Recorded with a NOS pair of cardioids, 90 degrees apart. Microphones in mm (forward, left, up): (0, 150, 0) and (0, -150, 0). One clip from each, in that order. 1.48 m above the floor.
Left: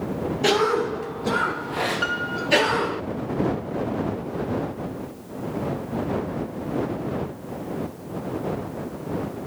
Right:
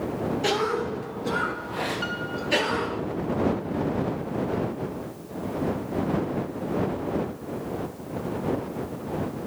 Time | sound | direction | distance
0.4 | a cough | 25° left | ?
2.0 | a piano | 45° left | ?